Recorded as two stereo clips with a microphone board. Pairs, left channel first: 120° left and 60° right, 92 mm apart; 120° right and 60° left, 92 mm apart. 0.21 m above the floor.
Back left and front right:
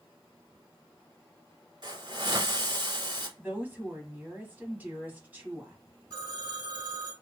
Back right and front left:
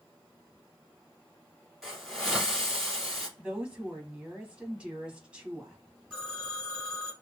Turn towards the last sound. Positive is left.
turn(degrees=-25)